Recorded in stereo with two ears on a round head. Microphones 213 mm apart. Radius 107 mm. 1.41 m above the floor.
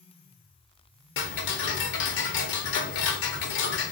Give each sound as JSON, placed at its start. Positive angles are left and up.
{"t": 1.2, "sound": "ticking", "side_deg": 50, "distance_m": 0.6}